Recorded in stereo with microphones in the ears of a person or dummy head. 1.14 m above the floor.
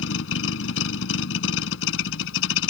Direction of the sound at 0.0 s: 85° left.